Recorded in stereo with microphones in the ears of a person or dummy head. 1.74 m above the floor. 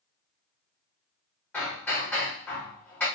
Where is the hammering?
5° left (ahead or behind), 1.3 m.